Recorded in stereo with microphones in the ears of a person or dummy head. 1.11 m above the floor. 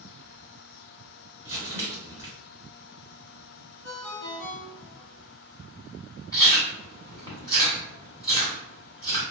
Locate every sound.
1.4 s crumpling: 10° right (ahead or behind), 1.4 m
3.8 s a ringtone: 80° left, 1.0 m
6.3 s chewing: 20° left (ahead or behind), 1.4 m